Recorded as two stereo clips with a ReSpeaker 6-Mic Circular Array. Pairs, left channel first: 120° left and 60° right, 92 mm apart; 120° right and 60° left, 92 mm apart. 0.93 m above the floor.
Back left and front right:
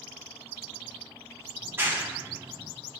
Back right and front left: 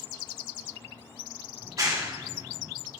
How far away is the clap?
About 1.4 m.